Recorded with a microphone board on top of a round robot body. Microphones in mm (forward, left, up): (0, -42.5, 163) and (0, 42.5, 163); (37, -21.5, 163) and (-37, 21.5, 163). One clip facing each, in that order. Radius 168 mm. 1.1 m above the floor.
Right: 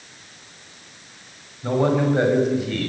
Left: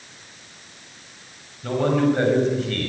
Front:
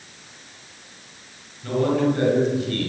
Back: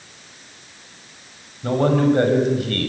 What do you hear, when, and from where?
1.6 s a man speaking: 160° right, 6.5 m; by 2.9 s straight behind, 6.5 m